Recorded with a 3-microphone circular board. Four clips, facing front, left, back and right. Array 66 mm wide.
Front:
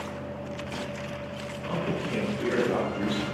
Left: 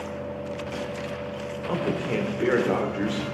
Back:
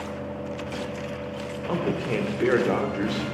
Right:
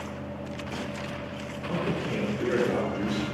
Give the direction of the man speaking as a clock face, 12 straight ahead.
7 o'clock.